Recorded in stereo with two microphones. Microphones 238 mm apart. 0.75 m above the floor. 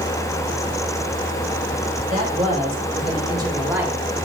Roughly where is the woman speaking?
Right.